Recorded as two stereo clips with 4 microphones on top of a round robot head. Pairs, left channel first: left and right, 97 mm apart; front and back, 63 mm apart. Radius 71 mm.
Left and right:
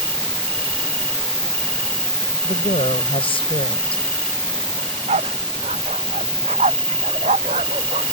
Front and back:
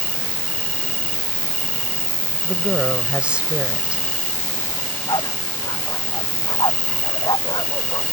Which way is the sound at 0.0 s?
50° left.